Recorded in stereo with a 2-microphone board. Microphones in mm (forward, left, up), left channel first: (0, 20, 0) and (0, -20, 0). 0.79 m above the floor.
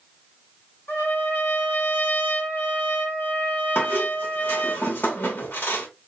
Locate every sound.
0.9 s a trumpet: 75° left (ahead or behind), 1.6 m
3.8 s a squeak: 60° left (ahead or behind), 0.9 m